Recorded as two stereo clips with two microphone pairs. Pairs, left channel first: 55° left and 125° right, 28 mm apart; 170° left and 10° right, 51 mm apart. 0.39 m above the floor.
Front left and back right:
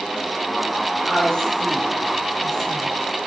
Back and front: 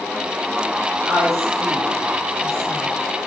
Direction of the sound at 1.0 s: 5° right.